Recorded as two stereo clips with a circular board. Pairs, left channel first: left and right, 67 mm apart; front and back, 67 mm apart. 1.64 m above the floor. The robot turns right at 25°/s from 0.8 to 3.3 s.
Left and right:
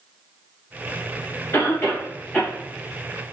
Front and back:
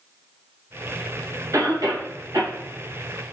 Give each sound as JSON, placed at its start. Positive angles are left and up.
{"t": 1.5, "sound": "a cough", "azimuth_deg": 140, "distance_m": 2.5}